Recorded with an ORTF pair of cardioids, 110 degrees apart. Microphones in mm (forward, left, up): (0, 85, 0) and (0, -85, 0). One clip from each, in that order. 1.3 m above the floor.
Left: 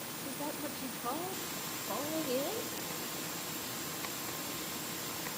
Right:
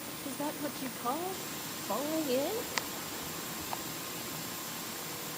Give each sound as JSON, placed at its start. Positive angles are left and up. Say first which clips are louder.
{"t": 0.2, "sound": "a woman speaking", "louder": "right 4 dB", "azimuth_deg": -20, "distance_m": 0.8}